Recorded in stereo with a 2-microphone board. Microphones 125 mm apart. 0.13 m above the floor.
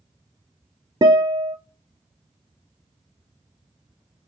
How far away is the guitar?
About 0.7 m.